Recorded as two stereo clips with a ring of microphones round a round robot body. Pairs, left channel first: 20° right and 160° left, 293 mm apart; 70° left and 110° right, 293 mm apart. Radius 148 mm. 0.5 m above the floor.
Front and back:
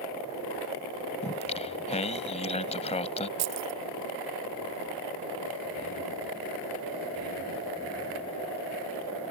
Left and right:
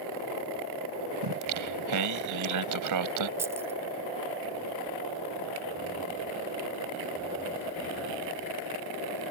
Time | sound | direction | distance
1.2 | singing | 90° right | ?
3.4 | keys jangling | 170° left | ?